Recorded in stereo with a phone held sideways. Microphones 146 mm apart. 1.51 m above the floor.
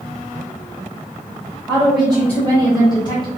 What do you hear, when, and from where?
1.7 s a woman speaking: 5° right (ahead or behind), 1.1 m; by 3.3 s 35° left (ahead or behind), 1.4 m